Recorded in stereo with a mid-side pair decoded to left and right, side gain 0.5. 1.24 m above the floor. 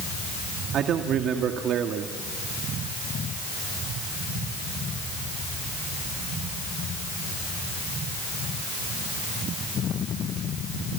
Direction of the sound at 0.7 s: 60° right.